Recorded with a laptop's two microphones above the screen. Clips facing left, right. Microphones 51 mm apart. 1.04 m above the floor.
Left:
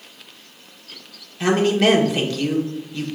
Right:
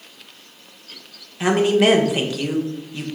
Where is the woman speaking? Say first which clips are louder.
Right 1 dB; 15° right (ahead or behind), 1.1 m.